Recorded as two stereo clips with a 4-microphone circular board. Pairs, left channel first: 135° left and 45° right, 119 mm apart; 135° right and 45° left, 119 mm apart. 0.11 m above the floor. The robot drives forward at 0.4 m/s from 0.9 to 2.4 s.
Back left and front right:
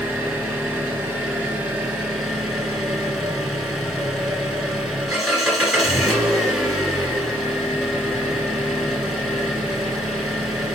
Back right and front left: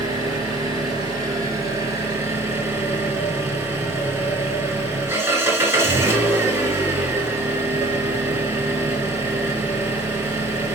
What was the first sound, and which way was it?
An engine running, 15° left.